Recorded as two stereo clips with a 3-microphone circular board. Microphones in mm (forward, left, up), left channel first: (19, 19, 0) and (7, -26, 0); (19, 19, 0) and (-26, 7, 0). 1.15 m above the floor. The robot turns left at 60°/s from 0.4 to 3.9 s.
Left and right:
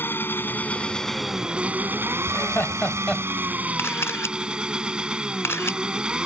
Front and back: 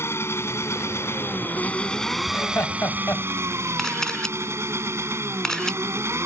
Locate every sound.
0.0 s an engine running: 35° left; by 6.3 s 175° right
2.3 s laughter: 55° left; by 3.2 s 5° right
3.8 s a camera shutter: 95° left; by 5.8 s 90° left